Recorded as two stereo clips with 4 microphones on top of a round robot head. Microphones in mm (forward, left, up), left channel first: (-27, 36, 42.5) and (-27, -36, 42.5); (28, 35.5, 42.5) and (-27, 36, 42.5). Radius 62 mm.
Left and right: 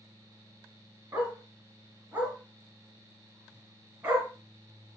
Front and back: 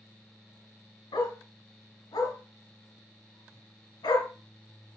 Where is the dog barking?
15° right, 2.5 m.